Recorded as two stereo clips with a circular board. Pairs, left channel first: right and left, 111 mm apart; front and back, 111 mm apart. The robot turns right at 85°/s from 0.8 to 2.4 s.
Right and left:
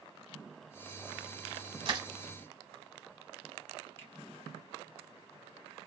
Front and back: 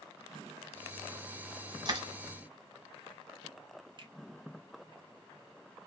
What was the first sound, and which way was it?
Crushing, 130° left.